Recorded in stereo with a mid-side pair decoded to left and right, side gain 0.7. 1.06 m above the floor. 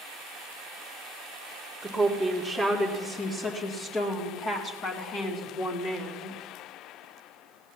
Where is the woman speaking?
5° right, 2 m; by 6.4 s 55° left, 3 m.